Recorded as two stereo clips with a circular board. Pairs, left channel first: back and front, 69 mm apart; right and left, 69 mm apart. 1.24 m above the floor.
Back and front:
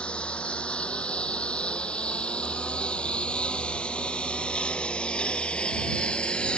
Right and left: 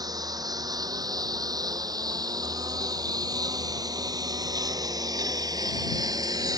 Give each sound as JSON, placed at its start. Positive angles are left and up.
{"t": 0.0, "sound": "a lawn mower", "azimuth_deg": 105}